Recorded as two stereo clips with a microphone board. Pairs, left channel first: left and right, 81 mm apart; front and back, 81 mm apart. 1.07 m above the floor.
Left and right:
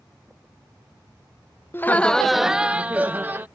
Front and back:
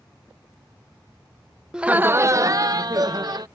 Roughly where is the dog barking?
I don't hear a dog barking.